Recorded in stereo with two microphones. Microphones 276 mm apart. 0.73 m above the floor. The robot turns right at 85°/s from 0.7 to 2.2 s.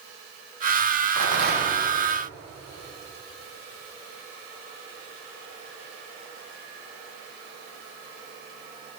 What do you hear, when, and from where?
1.2 s a rattle: 75° right, 1.6 m; by 1.8 s 20° right, 1.6 m